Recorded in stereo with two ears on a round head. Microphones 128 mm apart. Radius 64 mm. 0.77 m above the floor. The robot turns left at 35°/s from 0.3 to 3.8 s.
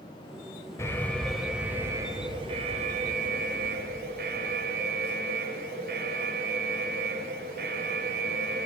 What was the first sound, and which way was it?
An alarm, 20° left.